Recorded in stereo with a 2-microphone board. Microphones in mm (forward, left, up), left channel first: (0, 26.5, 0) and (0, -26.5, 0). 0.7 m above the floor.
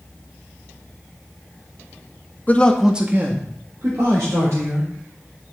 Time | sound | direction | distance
2.5 | a man speaking | 30° left (ahead or behind) | 0.9 m